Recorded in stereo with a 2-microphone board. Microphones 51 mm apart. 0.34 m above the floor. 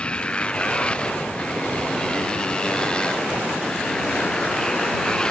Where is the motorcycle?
20° left (ahead or behind); by 5.3 s 15° left (ahead or behind).